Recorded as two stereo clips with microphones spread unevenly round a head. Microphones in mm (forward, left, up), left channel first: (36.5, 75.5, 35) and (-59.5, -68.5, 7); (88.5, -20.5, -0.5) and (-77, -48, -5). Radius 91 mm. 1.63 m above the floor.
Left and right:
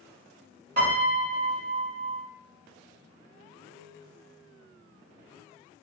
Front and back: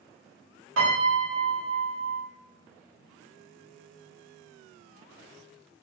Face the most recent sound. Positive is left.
turn(degrees=-165)